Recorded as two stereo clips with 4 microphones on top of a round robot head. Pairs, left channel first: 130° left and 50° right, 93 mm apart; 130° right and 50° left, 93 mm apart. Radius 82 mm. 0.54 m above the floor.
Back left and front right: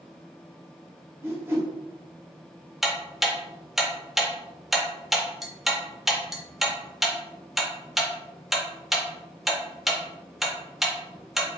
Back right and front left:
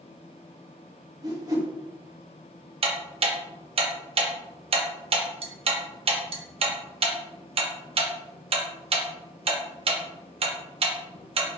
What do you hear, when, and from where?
1.2 s a whoosh: 10° left, 1.4 m
2.8 s ticking: 40° left, 0.7 m